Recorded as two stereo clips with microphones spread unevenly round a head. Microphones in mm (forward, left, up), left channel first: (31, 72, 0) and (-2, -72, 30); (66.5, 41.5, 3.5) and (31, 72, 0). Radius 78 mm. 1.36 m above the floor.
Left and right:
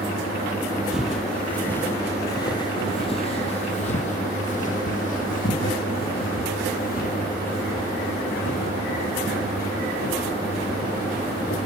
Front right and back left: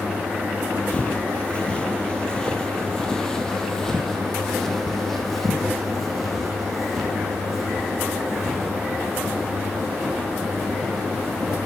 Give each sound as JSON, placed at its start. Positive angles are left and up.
{"t": 0.9, "sound": "footsteps", "azimuth_deg": -45, "distance_m": 1.5}